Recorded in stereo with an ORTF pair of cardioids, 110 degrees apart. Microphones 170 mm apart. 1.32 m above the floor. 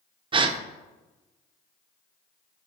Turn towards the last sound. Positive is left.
turn(degrees=-30)